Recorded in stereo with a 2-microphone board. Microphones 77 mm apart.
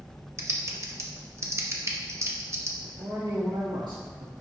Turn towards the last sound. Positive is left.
turn(degrees=-80)